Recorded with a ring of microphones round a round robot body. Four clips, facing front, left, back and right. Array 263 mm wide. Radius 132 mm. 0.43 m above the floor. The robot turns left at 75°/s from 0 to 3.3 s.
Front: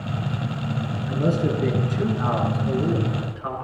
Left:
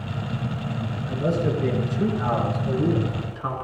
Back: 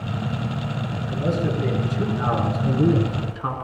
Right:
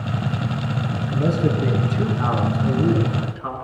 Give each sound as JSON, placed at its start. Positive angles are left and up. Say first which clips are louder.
{"t": 1.1, "sound": "a man speaking", "louder": "right 2 dB, front 2 dB", "azimuth_deg": -15, "distance_m": 6.5}